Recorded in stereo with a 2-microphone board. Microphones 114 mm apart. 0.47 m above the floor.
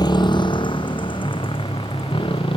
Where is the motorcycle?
35° left (ahead or behind); by 2.6 s 50° left (ahead or behind).